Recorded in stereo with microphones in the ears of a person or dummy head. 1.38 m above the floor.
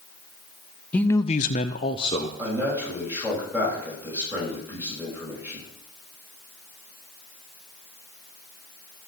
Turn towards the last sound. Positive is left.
turn(degrees=-10)  # may be behind; listen again after turning